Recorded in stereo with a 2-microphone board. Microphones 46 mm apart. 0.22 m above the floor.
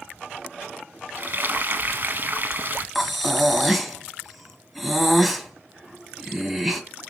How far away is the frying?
About 0.8 m.